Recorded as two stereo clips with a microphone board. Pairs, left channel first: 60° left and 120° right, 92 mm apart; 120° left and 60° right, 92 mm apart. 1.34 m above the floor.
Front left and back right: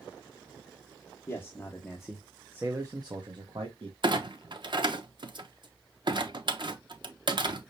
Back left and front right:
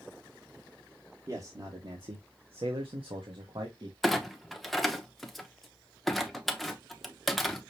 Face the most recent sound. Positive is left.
turn(degrees=-150)